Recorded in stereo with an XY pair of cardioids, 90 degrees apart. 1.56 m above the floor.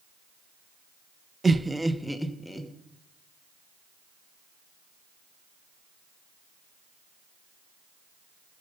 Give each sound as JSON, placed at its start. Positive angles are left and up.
{"t": 1.4, "sound": "laughter", "azimuth_deg": -25, "distance_m": 0.6}